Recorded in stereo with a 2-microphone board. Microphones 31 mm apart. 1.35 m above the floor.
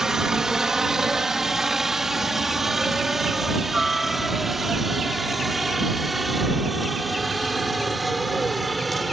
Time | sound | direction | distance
0.0 | a helicopter | 15° right (ahead or behind) | ?